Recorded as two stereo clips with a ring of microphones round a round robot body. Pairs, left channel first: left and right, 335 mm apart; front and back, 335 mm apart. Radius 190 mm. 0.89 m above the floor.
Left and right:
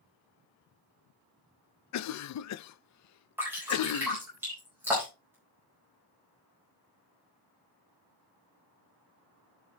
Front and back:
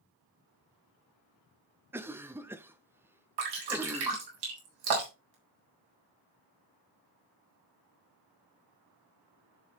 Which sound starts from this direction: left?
A cough, at 1.9 s.